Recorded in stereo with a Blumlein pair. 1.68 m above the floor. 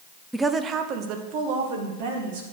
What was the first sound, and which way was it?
A woman speaking, 5° right.